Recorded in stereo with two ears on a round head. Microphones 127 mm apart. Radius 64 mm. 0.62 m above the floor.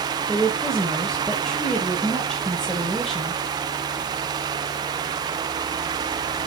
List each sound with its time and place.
0.3 s a woman speaking: 5° left (ahead or behind), 2.5 m